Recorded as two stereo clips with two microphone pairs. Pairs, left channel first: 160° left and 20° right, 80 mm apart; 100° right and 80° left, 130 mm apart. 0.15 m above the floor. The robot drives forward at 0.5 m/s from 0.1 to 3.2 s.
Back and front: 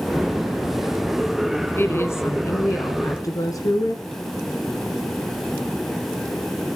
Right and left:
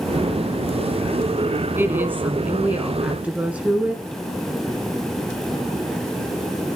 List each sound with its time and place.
1.8 s a woman speaking: 140° left, 1.5 m; by 4.0 s 160° left, 2.0 m